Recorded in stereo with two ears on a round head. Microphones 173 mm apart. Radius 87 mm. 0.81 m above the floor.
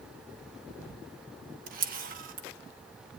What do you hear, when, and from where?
1.7 s a camera shutter: 45° right (ahead or behind), 1.1 m